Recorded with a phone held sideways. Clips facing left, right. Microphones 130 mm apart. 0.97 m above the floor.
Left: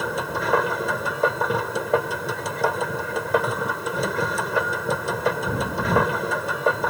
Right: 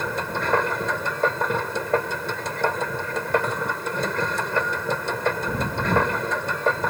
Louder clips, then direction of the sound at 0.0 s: Left 1 dB; 5° left (ahead or behind).